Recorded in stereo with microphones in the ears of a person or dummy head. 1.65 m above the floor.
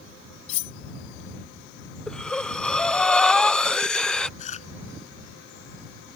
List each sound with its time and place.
0.5 s cutlery clinking: 40° left (ahead or behind)
2.1 s breathing: centre (ahead or behind)
4.4 s chewing: 40° left (ahead or behind)